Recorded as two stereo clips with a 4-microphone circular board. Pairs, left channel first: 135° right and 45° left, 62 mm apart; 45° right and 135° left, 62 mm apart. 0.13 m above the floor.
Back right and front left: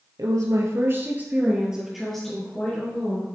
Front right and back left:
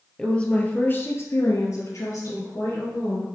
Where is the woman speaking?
30° left, 2.5 m; by 3.2 s 70° right, 4 m.